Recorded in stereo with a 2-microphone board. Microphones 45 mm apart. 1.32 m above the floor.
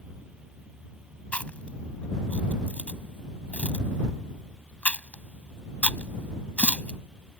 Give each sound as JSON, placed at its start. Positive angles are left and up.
{"t": 1.3, "sound": "chewing", "side_deg": 30}